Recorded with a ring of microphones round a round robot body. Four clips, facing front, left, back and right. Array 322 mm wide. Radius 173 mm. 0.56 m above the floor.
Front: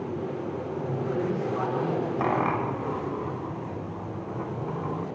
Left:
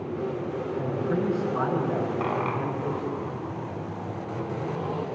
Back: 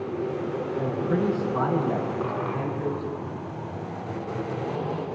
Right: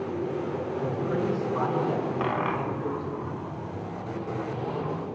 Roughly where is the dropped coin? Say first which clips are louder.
Even, front 3 dB; ahead.